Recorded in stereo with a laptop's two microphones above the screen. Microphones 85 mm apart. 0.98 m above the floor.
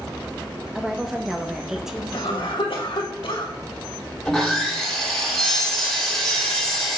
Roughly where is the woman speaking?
Centre.